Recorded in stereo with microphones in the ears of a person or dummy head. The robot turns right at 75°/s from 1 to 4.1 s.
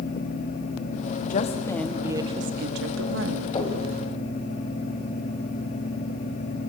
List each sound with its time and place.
1.3 s a woman speaking: 130° left, 2 m; by 3.6 s 55° right, 2 m
3.5 s knocking: 25° left (ahead or behind), 5.5 m; by 3.8 s 40° left (ahead or behind), 5.5 m